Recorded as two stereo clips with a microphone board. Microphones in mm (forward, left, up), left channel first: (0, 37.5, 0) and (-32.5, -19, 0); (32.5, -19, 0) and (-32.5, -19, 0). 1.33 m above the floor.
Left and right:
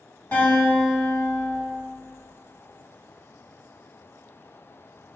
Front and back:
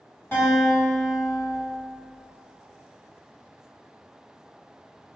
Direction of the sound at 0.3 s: 20° left.